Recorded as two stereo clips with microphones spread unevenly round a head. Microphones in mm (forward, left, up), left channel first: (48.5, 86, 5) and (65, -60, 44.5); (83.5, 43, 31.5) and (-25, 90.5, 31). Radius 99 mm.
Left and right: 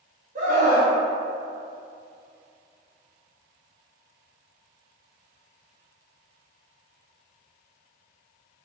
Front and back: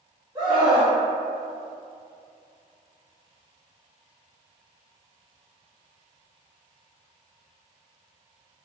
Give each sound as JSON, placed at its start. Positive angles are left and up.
{"t": 0.3, "sound": "a scream", "azimuth_deg": -140, "distance_m": 1.1}